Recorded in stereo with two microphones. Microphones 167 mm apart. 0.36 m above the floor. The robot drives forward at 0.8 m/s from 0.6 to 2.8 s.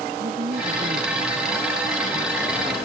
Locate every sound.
0.2 s a woman speaking: 60° right (ahead or behind); by 2.8 s 55° right (ahead or behind)